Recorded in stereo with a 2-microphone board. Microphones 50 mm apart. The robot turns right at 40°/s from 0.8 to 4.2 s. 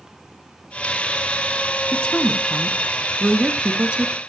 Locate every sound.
1.9 s a woman speaking: 25° left (ahead or behind), 1.2 m; by 4.2 s 25° right (ahead or behind), 1.2 m